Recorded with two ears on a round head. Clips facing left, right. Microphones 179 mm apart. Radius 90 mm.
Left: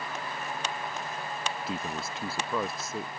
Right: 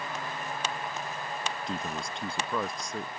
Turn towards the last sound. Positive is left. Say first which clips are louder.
# even
turn(degrees=5)  # may be behind; listen again after turning